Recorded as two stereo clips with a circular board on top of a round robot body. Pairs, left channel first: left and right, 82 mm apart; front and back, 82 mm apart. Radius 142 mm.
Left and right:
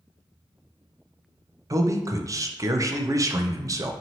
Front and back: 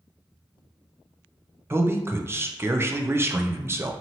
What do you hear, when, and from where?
1.7 s a man speaking: 125° right, 0.6 m